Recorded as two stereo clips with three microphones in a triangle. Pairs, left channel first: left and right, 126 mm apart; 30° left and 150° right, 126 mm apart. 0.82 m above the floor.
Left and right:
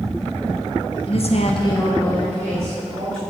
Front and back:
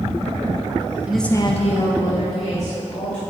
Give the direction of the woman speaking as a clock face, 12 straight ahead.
8 o'clock.